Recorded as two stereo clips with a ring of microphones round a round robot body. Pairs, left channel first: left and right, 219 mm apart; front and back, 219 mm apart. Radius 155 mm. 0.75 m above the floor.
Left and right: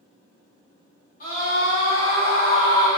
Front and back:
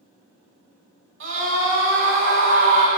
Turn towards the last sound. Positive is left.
turn(degrees=155)